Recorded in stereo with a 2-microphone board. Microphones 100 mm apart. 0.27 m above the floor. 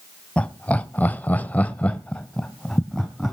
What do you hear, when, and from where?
0.4 s laughter: 10° left (ahead or behind), 1.4 m; by 3.3 s 5° left (ahead or behind), 2 m